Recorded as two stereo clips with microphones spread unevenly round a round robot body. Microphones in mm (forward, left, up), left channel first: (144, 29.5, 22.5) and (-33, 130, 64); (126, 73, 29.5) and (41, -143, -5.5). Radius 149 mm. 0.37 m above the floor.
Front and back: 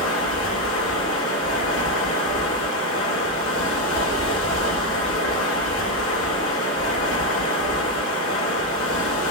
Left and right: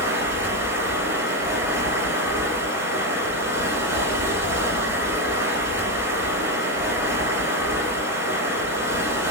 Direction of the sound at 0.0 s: 30° right.